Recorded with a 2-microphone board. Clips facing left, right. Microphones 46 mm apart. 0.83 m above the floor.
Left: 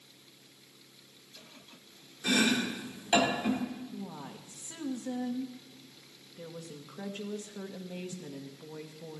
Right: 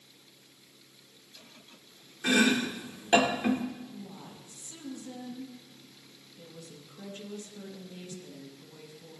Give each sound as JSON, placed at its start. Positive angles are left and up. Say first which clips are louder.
{"t": 2.2, "sound": "chopping", "louder": "right 3 dB", "side_deg": -40, "distance_m": 2.0}
{"t": 3.9, "sound": "a woman speaking", "louder": "left 3 dB", "side_deg": 45, "distance_m": 1.4}